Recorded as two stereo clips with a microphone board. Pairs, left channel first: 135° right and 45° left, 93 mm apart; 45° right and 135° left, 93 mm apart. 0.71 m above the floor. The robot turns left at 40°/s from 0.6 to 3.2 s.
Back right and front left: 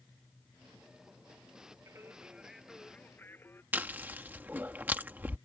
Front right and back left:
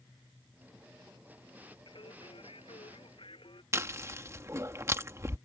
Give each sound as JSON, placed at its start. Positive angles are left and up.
{"t": 1.9, "sound": "singing", "azimuth_deg": -15}
{"t": 3.7, "sound": "chewing", "azimuth_deg": 105}